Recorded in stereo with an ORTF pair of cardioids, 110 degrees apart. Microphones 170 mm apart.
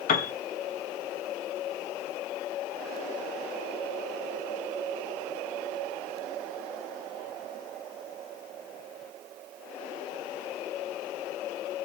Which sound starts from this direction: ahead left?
A piano, at 0.1 s.